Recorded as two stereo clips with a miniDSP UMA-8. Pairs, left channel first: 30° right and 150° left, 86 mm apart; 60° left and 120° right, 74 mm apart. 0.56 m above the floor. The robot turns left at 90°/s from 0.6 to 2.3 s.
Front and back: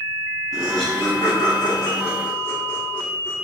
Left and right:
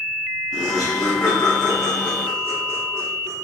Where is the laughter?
60° left, 0.8 m; by 3.3 s 90° right, 0.8 m.